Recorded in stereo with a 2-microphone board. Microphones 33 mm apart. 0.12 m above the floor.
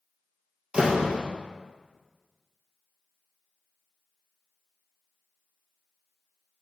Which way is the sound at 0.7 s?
30° right (ahead or behind).